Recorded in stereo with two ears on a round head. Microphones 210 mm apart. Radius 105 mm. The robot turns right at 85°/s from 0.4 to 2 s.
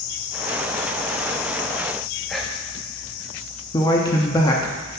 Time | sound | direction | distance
2.3 | whispering | centre (ahead or behind) | 0.9 m
3.7 | a man speaking | 15° left (ahead or behind) | 0.7 m